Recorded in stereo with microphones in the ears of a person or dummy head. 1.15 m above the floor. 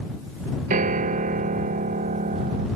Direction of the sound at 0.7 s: 45° right (ahead or behind).